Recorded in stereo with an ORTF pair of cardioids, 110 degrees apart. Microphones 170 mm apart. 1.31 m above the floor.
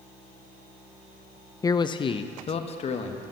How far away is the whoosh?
I don't hear a whoosh.